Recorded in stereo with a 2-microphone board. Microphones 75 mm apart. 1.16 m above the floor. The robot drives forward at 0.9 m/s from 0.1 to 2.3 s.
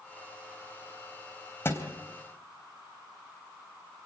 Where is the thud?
30° left (ahead or behind), 3 m.